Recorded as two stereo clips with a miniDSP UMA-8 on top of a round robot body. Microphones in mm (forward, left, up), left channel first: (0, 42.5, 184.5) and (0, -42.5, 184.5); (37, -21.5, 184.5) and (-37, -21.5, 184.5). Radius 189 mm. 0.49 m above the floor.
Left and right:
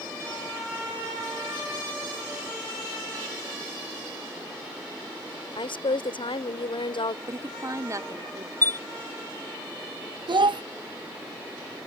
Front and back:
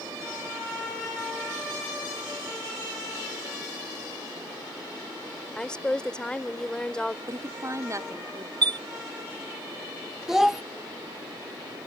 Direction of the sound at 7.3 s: 140° right.